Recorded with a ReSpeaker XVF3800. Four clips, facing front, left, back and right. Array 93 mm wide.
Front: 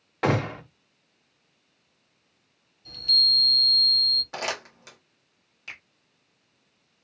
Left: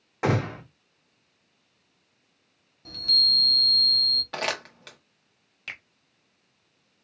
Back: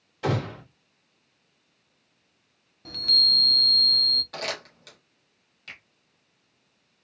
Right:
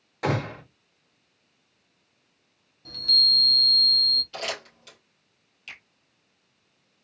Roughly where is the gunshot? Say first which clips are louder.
Left 1 dB, front 3 dB; ahead left.